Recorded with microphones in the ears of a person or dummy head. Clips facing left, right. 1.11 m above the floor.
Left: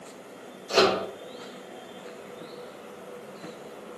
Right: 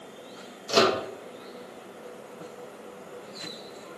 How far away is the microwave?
About 0.7 m.